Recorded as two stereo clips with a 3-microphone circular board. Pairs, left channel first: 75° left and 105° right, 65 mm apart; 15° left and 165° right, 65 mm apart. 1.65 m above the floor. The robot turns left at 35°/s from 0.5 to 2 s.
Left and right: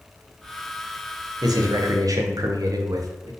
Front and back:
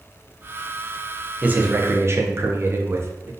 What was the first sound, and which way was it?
A man speaking, 100° right.